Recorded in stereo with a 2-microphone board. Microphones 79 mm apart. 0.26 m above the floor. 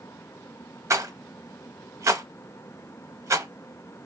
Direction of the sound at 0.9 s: 40° right (ahead or behind).